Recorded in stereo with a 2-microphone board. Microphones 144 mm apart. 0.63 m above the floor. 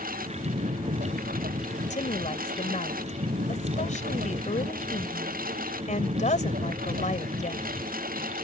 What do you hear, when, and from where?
0.0 s a lawn mower: 85° right
1.9 s a woman speaking: 60° left (ahead or behind)